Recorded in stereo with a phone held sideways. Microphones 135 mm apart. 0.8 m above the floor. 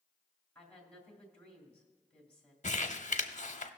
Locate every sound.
0.6 s a woman speaking: 10° left (ahead or behind), 2.5 m
2.6 s crumpling: 60° left (ahead or behind), 0.8 m